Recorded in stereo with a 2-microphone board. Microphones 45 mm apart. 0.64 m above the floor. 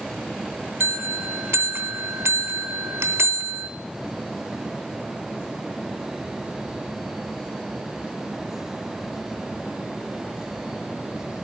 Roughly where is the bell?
Right.